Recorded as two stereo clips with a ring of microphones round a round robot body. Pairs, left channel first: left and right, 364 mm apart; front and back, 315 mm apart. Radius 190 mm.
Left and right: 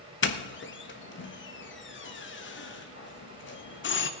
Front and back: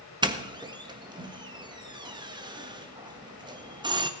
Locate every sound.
0.2 s a doorbell: 115° left, 1.4 m